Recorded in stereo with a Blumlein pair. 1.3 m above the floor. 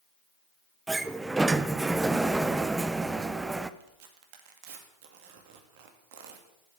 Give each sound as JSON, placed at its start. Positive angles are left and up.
{"t": 0.9, "sound": "a sliding door", "azimuth_deg": -10, "distance_m": 0.7}
{"t": 3.8, "sound": "tearing paper", "azimuth_deg": -50, "distance_m": 2.5}